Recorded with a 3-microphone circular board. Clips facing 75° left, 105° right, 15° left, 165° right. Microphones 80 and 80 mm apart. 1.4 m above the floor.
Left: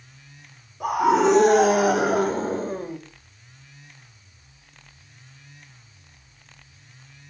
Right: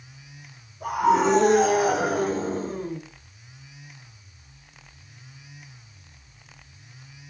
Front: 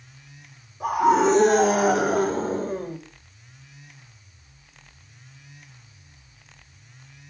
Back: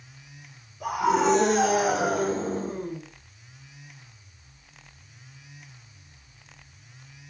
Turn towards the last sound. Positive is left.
turn(degrees=40)